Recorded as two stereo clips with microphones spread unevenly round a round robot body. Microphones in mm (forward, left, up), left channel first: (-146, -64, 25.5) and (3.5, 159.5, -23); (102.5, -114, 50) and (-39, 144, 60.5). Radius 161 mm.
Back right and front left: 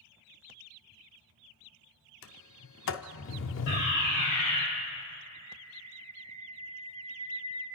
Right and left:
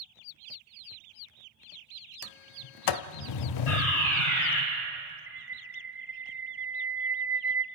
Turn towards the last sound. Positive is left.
turn(degrees=35)